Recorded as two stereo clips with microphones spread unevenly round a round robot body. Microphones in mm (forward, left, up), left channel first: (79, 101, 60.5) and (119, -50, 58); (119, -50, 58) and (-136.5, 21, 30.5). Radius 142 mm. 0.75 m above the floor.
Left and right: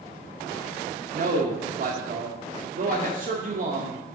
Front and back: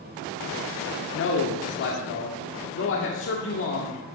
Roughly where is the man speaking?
Ahead right.